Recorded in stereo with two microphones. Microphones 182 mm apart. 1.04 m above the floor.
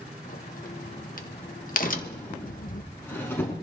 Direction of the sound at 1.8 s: 10° left (ahead or behind).